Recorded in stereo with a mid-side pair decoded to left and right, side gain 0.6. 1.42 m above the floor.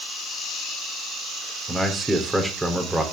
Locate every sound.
1.7 s a man speaking: 10° right, 4 m